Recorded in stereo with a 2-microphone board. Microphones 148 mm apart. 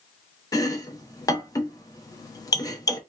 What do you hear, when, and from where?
0.5 s chopping: 25° left (ahead or behind), 0.5 m